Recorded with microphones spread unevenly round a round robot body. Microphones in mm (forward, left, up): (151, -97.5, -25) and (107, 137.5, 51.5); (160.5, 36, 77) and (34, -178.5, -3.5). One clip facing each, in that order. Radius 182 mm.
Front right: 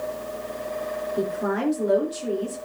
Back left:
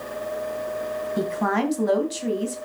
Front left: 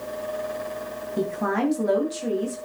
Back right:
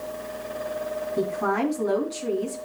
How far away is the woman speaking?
About 2.5 m.